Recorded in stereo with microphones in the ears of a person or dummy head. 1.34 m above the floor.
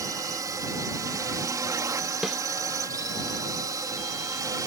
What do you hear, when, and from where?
0.0 s a drone: 10° right (ahead or behind)
2.2 s a snare drum: 5° right (ahead or behind)